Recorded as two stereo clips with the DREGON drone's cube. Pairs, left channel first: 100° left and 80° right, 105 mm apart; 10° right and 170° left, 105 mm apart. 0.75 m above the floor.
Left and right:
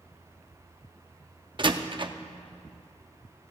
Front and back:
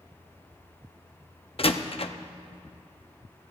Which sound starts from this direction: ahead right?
A door slam, at 1.6 s.